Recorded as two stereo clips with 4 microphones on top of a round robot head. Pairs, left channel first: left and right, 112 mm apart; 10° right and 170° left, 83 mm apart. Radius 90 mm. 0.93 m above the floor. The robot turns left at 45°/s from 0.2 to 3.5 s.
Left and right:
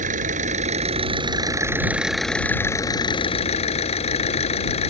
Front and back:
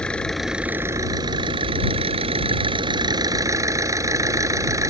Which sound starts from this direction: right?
An engine running, at 0.0 s.